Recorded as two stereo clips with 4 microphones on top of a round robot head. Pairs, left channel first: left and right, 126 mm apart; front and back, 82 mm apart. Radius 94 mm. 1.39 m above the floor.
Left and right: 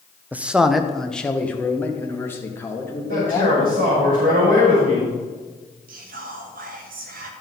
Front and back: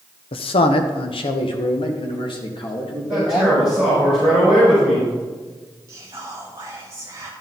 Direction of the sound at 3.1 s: 85° right.